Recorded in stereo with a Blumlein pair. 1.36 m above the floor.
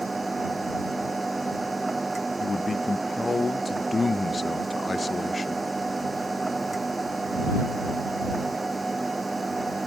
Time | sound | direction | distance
0.0 | a machine running | 10° right | ?
2.4 | a man speaking | 10° left | ?